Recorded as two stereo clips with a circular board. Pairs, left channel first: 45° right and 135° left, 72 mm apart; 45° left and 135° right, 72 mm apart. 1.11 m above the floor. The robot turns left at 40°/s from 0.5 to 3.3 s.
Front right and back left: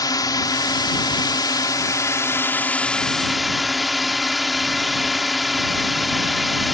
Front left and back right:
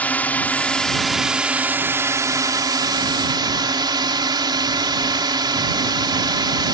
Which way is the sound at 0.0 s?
25° right.